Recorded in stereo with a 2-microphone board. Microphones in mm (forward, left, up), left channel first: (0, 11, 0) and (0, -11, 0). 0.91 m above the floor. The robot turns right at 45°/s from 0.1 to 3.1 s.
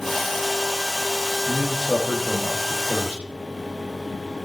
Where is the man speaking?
Straight behind, 1.7 m; by 3.2 s 105° right, 1.7 m.